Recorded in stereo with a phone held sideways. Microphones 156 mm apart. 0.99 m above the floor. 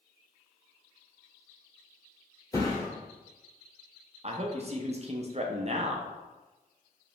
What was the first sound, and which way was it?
A thud, 20° left (ahead or behind).